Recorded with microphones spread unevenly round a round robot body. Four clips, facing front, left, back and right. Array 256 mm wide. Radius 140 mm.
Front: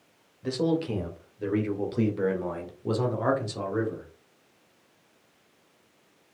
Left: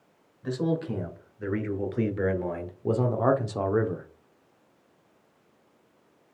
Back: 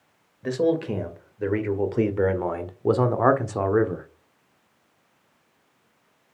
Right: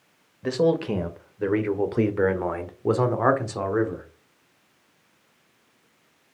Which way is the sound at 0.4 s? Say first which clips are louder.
Right 6 dB, back 4 dB; 115° right.